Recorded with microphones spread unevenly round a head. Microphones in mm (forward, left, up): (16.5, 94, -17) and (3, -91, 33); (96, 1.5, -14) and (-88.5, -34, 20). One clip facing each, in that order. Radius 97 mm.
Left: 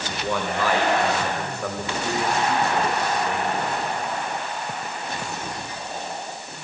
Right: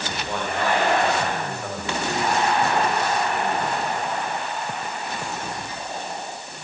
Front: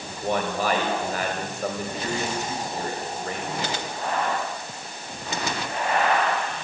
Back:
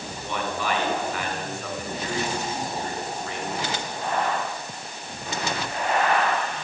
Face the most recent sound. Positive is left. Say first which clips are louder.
# left 2 dB, front 4 dB
turn(degrees=65)